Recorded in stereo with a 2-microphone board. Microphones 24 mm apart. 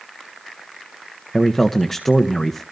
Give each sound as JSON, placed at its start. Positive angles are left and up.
{"t": 1.3, "sound": "a man speaking", "side_deg": 15, "distance_m": 1.0}